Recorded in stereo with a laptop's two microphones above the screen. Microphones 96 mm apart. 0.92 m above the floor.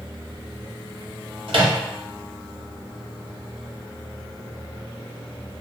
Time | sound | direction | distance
1.5 | a microwave | 60° right (ahead or behind) | 0.8 m